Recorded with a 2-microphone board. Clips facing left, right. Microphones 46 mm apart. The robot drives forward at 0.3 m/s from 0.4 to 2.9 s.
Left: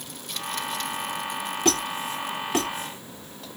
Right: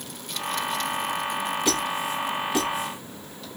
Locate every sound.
1.6 s a squeak: 50° left (ahead or behind), 1.2 m; by 3.6 s 45° left (ahead or behind), 1.4 m